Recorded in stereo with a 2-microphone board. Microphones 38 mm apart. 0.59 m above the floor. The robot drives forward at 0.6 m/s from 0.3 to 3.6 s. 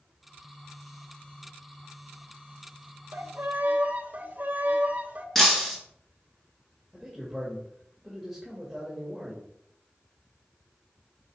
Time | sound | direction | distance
3.1 | a violin | 55° right (ahead or behind) | 0.9 m
5.3 | breaking glass | 10° left (ahead or behind) | 3 m
6.9 | a man speaking | centre (ahead or behind) | 2.5 m